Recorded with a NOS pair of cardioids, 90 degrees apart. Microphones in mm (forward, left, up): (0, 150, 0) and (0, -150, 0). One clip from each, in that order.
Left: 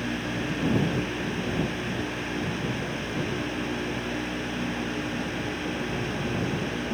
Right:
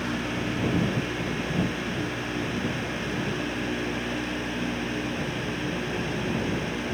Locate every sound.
0.0 s a fan: straight ahead